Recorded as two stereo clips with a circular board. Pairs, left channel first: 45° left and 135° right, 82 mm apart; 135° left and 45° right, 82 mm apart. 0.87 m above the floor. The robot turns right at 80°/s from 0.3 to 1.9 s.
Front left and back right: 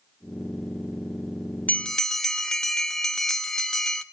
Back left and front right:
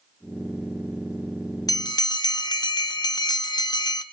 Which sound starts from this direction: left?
A bell, at 1.7 s.